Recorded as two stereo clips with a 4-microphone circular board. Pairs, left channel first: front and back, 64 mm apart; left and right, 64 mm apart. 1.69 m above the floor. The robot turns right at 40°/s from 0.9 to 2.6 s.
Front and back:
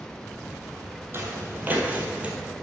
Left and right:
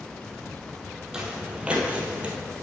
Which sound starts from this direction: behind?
Footsteps, at 1.1 s.